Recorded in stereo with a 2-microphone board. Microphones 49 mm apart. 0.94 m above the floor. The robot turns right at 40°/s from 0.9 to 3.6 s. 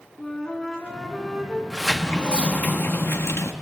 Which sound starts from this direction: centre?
A flute, at 0.2 s.